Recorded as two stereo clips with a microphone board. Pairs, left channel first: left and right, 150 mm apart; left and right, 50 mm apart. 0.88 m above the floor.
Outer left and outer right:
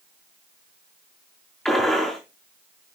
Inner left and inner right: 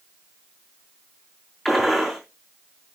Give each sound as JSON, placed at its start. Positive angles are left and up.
{"t": 1.6, "sound": "a gunshot", "side_deg": 5, "distance_m": 5.5}